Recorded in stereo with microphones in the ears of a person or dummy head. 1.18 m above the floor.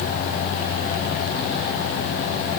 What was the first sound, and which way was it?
Only background noise.